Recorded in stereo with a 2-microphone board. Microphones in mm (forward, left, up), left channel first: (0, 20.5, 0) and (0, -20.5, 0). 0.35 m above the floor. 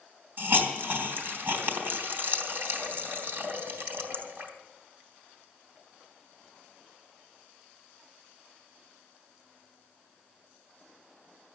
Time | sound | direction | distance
0.4 | a hiss | 50° right (ahead or behind) | 3 m